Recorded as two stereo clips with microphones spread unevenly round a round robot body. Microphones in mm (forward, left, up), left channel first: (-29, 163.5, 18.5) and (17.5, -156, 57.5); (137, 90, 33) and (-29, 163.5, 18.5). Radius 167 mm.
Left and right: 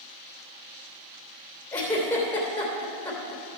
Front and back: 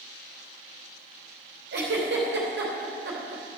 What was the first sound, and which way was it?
A giggle, straight behind.